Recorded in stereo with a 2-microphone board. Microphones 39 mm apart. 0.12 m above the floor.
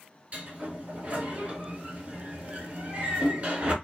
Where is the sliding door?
40° right (ahead or behind), 1.3 m.